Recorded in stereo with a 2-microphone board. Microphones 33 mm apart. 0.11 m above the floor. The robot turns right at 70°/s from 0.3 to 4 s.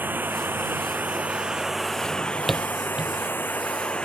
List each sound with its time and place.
0.0 s running water: 110° right; by 4.0 s 150° left
2.0 s a drawer: 35° left (ahead or behind); by 3.1 s 35° right (ahead or behind)